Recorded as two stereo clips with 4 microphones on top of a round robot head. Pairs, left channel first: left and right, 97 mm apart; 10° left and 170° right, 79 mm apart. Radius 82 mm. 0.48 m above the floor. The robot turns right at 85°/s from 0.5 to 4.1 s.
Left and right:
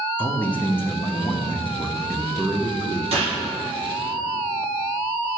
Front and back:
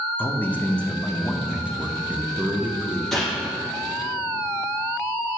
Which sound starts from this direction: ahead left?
A man speaking, at 0.2 s.